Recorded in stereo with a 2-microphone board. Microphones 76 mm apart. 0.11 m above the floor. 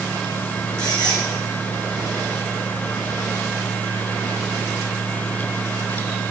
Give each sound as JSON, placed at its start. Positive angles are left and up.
{"t": 0.8, "sound": "a squeak", "side_deg": 65, "distance_m": 2.0}